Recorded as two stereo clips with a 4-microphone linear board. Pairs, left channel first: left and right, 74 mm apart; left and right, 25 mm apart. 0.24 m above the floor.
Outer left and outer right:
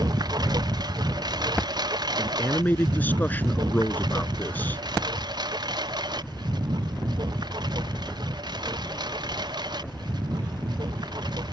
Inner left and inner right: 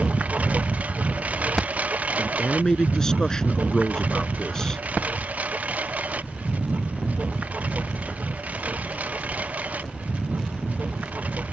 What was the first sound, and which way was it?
A lawn mower, 70° right (ahead or behind).